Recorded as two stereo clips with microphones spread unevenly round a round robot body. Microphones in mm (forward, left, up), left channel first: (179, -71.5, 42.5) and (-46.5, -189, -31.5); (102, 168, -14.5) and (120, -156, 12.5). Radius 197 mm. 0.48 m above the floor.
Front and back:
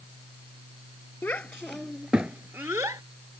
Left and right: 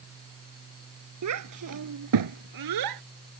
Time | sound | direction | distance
1.2 | a child speaking | 55° right | ?